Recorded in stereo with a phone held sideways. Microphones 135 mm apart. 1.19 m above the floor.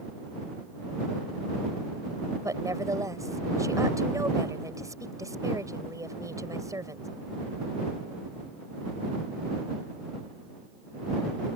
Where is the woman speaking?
25° right (ahead or behind).